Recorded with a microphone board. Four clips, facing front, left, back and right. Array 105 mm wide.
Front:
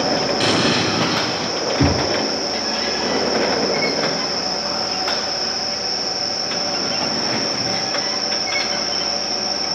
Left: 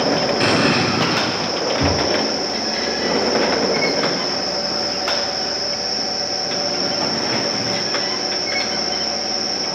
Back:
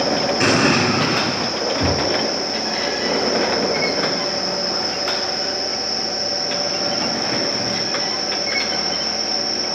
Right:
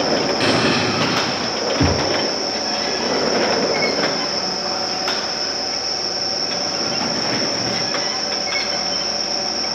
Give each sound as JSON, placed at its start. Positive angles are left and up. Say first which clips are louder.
{"t": 0.4, "sound": "an explosion", "louder": "left 1 dB, back 2 dB", "azimuth_deg": 170, "distance_m": 1.3}
{"t": 1.8, "sound": "knocking", "louder": "right 1 dB, front 3 dB", "azimuth_deg": -40, "distance_m": 1.2}